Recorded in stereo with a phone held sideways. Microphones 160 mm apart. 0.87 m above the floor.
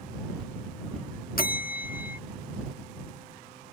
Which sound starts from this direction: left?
A bell, at 1.4 s.